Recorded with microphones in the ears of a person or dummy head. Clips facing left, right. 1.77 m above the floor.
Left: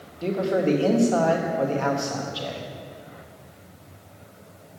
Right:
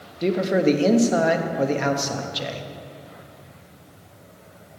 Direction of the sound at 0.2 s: 25° right (ahead or behind).